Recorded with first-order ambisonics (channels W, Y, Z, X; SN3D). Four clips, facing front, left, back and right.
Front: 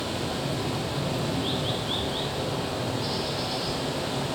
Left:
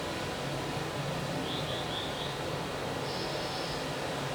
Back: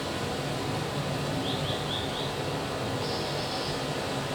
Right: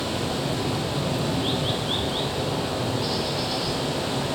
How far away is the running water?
About 3 m.